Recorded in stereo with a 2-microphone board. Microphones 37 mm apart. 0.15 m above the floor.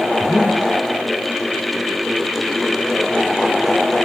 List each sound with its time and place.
0.2 s breathing: 15° right (ahead or behind), 6.5 m